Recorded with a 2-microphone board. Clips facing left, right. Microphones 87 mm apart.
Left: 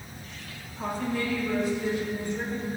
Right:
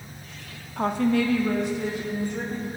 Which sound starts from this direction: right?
A woman speaking, at 0.8 s.